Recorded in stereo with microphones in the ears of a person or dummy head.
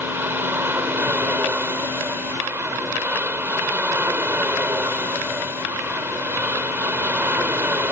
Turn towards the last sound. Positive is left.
turn(degrees=-10)  # may be behind; listen again after turning